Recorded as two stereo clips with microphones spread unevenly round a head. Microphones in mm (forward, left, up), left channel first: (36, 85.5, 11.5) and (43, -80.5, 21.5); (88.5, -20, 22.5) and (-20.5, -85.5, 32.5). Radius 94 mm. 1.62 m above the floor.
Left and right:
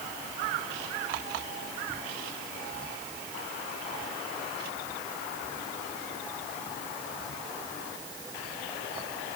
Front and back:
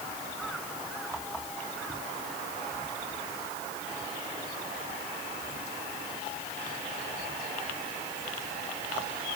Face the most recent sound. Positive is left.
No sound to turn to.